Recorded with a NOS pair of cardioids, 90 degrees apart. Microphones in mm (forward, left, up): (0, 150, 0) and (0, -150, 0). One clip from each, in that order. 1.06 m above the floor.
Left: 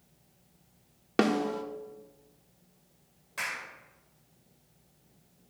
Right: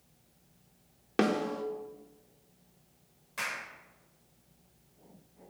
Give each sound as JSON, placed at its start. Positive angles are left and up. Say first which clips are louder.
{"t": 1.2, "sound": "a snare drum", "louder": "left 2 dB", "azimuth_deg": 15, "distance_m": 1.3}
{"t": 3.4, "sound": "a clap", "louder": "left 1 dB", "azimuth_deg": 10, "distance_m": 4.5}